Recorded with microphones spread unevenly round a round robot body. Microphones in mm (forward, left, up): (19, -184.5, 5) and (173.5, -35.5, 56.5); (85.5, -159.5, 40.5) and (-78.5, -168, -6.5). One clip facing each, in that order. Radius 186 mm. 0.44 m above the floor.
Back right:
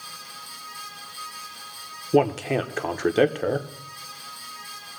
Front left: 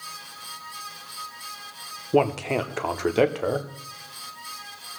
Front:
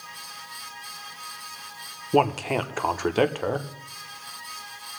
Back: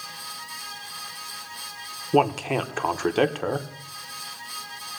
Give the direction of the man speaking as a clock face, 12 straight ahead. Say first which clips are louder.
Back right 1 dB, back 1 dB; 4 o'clock.